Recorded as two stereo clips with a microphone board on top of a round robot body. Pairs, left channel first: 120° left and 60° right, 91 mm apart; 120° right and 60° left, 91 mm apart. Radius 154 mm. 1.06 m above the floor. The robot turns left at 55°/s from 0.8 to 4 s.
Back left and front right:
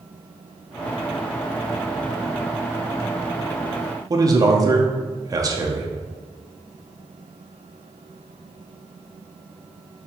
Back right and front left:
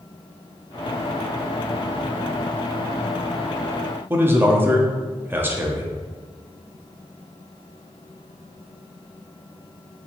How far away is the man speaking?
About 0.7 m.